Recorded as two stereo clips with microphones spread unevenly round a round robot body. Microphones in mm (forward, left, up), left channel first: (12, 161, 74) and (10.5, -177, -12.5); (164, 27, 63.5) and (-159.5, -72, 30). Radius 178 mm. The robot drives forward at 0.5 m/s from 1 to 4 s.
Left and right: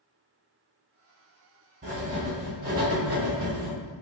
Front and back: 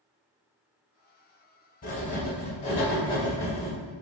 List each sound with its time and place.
1.8 s writing: 30° right, 2.0 m; by 3.8 s 65° right, 1.4 m